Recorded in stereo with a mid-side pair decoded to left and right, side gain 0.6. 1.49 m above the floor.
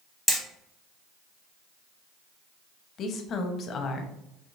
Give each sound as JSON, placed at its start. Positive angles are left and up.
{"t": 0.3, "sound": "hammering", "azimuth_deg": 0, "distance_m": 1.0}
{"t": 3.0, "sound": "a woman speaking", "azimuth_deg": 50, "distance_m": 0.7}